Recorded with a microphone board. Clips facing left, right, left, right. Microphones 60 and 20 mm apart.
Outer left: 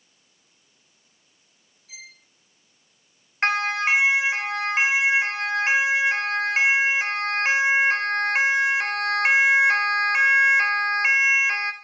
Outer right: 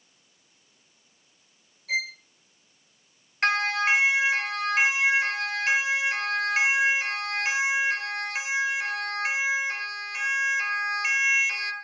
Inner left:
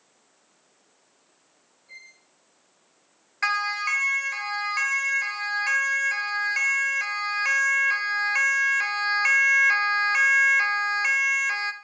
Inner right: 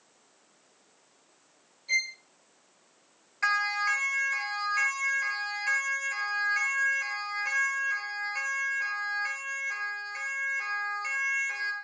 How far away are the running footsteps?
I don't hear running footsteps.